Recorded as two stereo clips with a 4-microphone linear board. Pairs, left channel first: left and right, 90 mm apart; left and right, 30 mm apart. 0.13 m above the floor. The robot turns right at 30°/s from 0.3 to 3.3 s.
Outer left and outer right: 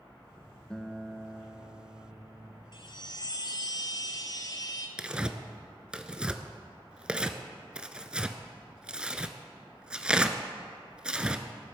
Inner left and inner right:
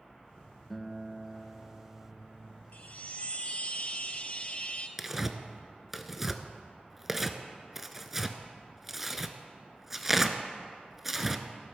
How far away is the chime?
About 1.0 m.